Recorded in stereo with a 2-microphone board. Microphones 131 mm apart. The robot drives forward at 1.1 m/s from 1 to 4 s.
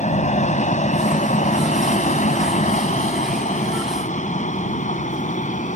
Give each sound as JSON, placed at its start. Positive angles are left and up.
{"t": 0.0, "sound": "an aircraft", "side_deg": 65}